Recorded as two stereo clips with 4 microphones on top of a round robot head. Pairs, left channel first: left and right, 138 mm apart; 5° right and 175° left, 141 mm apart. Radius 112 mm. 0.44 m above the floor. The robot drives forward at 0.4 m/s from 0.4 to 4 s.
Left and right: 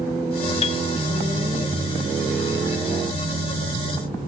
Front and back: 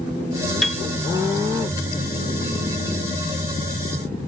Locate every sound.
0.6 s a piano: 85° left; by 0.8 s 90° left